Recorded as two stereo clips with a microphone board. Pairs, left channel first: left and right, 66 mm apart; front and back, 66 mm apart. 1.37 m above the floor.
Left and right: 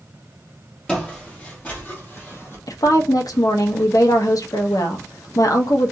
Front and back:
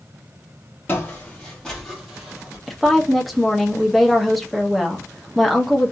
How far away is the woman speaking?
About 0.7 m.